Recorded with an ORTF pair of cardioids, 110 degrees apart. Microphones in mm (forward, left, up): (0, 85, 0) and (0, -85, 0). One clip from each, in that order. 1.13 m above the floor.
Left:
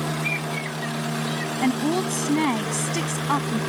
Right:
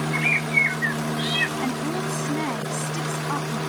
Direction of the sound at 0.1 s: 60° right.